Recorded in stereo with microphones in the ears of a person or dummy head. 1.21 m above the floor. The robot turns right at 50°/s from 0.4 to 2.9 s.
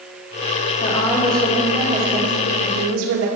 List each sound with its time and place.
0.8 s a woman speaking: 150° left, 2.5 m; by 3.3 s 105° right, 2.5 m